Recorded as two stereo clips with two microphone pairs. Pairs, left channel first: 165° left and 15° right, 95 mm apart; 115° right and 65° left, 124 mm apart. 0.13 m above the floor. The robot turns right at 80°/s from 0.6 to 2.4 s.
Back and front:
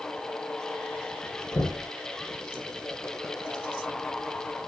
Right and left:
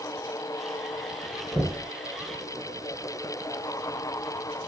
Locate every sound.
1.5 s knocking: 150° left, 1.5 m; by 1.9 s straight behind, 1.5 m